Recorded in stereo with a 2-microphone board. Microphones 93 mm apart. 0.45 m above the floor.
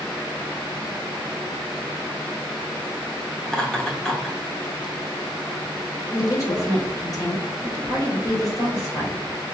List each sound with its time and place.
3.5 s laughter: 10° left (ahead or behind), 1.1 m
6.1 s a woman speaking: 40° left (ahead or behind), 1.9 m